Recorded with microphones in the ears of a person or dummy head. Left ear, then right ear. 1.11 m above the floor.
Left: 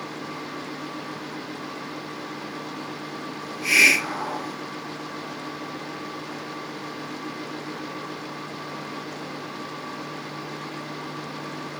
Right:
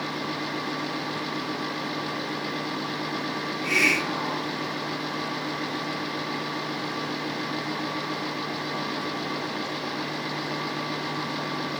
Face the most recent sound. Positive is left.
turn(degrees=80)